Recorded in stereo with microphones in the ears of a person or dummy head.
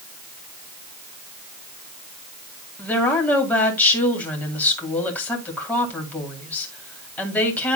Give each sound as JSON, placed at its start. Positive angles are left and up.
{"t": 2.8, "sound": "a woman speaking", "side_deg": 10, "distance_m": 2.5}